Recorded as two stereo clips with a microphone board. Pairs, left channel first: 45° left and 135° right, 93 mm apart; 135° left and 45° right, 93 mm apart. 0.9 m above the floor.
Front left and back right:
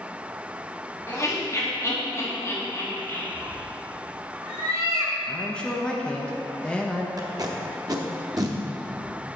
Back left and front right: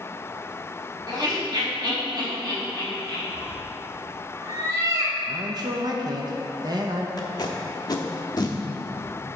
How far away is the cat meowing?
About 1.2 m.